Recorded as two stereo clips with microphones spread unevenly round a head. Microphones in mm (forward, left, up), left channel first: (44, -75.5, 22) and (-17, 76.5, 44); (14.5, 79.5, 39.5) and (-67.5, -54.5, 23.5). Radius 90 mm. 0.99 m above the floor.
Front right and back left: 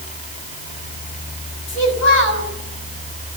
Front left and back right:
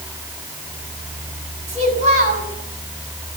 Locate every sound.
1.7 s a child speaking: 70° right, 6 m